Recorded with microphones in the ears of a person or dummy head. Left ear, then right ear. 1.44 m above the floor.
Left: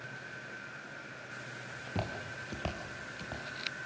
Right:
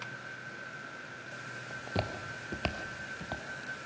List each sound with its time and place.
1.7 s footsteps: 15° right (ahead or behind), 1.6 m; by 3.4 s 30° right (ahead or behind), 2.5 m